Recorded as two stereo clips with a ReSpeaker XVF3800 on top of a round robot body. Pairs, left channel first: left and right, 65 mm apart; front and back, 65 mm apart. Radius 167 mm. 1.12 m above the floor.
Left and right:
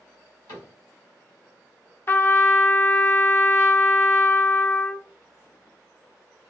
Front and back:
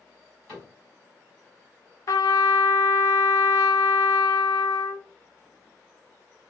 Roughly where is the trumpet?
Ahead left.